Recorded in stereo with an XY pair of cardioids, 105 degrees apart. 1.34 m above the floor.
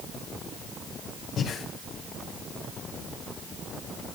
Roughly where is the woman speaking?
I don't hear a woman speaking.